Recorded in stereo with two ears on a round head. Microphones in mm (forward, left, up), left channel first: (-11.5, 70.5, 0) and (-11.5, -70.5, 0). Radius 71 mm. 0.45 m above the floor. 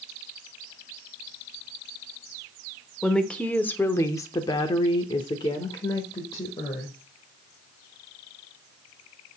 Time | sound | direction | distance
3.0 | a woman speaking | 5° left (ahead or behind) | 1.1 m